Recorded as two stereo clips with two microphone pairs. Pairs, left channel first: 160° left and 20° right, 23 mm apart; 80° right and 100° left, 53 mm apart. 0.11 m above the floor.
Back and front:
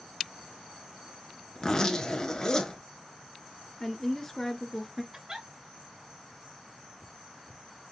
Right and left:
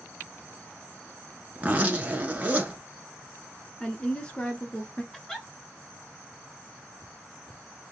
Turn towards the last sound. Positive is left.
turn(degrees=-5)